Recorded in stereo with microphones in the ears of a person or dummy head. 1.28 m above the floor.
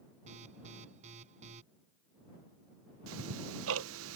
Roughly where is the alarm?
Right.